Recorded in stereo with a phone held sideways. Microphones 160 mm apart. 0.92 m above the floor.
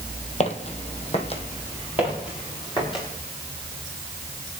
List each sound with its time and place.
0.4 s footsteps: 45° left (ahead or behind), 1.6 m; by 1.4 s 40° left (ahead or behind), 2 m
2.0 s footsteps: 35° left (ahead or behind), 7.5 m; by 3.0 s 30° left (ahead or behind), 7.5 m